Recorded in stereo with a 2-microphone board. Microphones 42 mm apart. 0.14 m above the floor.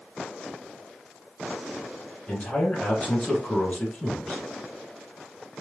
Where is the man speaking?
30° left (ahead or behind), 1.3 m.